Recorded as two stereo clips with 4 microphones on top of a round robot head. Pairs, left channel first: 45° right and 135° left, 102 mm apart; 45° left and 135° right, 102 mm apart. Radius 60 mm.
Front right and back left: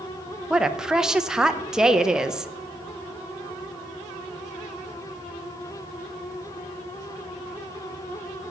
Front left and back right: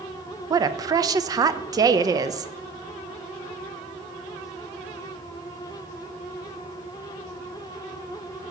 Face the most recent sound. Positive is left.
turn(degrees=-150)